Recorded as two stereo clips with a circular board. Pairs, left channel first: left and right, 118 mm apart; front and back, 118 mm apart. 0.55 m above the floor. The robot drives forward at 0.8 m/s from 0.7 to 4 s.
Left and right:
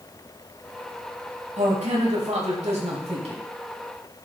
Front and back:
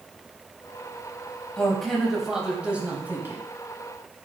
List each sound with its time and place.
1.6 s a man speaking: 85° right, 3 m; by 3.4 s 110° right, 3.5 m